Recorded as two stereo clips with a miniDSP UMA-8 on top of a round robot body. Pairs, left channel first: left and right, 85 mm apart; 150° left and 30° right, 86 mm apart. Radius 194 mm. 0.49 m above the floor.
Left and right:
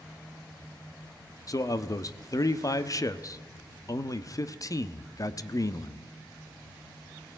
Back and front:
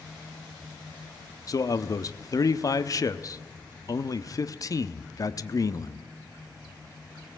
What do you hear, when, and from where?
1.5 s a man speaking: 120° left, 1.1 m